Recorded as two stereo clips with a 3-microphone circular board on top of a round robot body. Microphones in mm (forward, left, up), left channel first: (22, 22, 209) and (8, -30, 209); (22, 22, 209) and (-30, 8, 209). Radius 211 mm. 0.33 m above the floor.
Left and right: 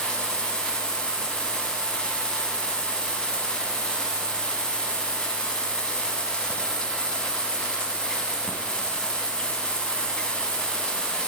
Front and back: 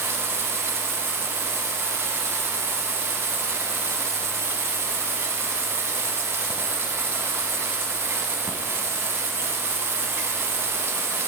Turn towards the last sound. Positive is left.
turn(degrees=150)